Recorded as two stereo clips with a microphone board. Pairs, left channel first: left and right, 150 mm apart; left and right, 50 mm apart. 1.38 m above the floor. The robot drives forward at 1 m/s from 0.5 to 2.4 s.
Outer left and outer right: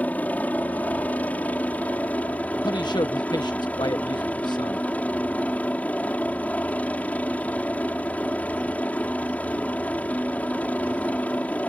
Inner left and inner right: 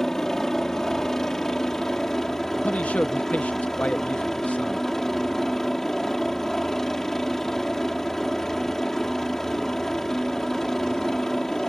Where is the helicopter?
10° left (ahead or behind).